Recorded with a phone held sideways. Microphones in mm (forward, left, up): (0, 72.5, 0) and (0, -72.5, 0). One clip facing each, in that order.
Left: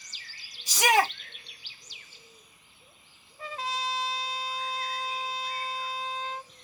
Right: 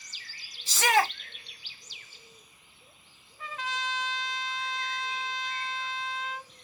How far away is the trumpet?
About 0.9 m.